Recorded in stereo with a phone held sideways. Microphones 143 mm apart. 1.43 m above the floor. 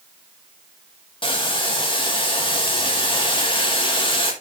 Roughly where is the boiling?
Left.